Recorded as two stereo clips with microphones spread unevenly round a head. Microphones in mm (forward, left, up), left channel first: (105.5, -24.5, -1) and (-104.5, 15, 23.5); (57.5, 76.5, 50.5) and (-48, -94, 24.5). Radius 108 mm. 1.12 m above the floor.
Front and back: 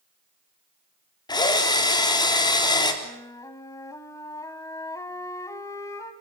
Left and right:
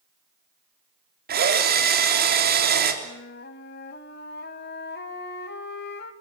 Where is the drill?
80° right, 3.5 m.